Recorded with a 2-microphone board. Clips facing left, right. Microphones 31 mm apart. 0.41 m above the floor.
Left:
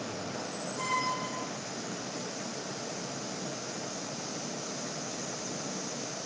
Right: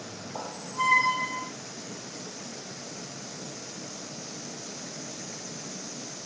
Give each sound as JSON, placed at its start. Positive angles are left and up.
{"t": 0.3, "sound": "a squeak", "side_deg": -40, "distance_m": 0.7}